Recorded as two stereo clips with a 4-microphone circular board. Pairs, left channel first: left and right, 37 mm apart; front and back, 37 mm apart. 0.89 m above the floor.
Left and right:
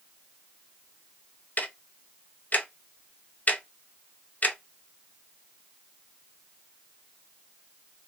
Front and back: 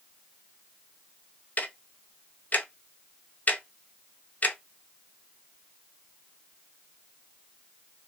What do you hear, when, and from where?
1.6 s ticking: 45° left, 0.5 m